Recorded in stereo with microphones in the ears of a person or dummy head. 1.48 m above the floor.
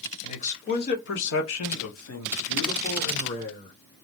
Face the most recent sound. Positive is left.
turn(degrees=55)  # may be behind; listen again after turning